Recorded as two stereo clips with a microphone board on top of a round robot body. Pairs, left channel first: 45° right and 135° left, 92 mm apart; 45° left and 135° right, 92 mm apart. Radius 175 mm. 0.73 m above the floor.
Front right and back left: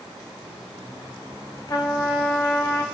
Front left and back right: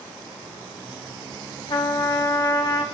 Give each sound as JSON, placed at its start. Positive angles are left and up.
{"t": 1.7, "sound": "a trumpet", "azimuth_deg": 10, "distance_m": 1.4}